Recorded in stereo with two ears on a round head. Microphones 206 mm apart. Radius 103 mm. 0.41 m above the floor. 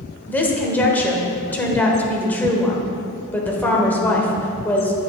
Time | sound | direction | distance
0.3 | a woman speaking | 10° left (ahead or behind) | 1.1 m